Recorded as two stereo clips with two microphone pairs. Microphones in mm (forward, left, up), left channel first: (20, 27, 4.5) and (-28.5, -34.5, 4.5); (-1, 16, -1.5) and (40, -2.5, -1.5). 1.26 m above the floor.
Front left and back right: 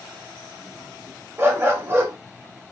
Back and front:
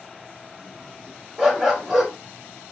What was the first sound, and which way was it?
A dog barking, 95° right.